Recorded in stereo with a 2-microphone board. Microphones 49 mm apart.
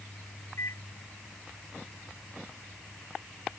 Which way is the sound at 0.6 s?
80° left.